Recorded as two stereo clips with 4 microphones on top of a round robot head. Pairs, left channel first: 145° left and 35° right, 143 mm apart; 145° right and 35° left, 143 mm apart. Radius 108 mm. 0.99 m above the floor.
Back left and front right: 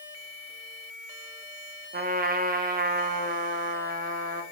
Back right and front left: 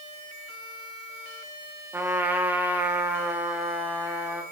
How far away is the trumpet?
About 1.8 m.